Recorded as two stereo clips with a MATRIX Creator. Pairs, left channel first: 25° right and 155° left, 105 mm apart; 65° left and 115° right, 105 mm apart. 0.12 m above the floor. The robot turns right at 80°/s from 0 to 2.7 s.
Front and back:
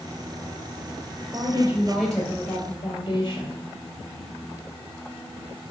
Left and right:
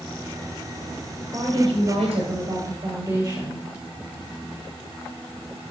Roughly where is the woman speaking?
Behind.